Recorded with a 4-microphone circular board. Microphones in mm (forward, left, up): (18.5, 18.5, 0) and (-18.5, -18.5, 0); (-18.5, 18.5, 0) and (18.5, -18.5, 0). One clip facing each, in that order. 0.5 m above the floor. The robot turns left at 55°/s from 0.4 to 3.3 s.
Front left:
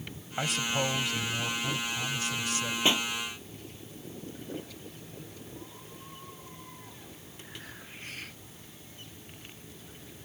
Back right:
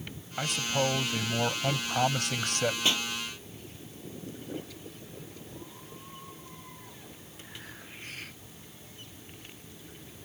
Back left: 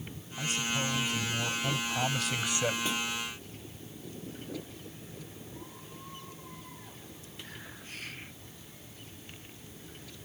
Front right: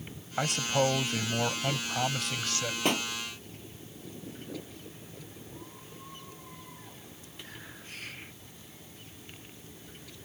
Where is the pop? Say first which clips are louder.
Front left 2 dB, front right 4 dB; 20° right; by 3.1 s 35° right.